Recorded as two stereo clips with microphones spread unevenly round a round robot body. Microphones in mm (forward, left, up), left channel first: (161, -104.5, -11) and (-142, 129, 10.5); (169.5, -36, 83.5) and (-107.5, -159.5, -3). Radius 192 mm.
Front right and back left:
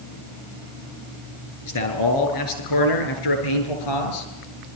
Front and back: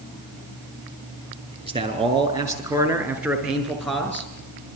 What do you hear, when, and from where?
1.6 s a man speaking: 85° right, 6.5 m; by 4.3 s 60° right, 7 m